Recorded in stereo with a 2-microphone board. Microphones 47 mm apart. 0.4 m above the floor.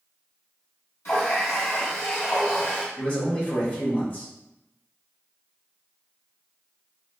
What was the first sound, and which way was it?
A running tap, 65° left (ahead or behind).